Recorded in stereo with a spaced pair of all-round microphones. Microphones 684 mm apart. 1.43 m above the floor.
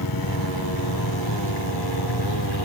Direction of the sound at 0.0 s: 30° left (ahead or behind).